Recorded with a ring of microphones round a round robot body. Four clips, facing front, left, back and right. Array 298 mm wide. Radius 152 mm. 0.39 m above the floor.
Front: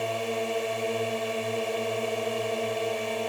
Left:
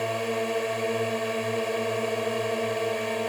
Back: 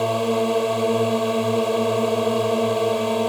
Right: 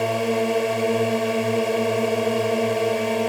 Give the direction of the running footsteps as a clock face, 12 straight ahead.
I don't hear running footsteps.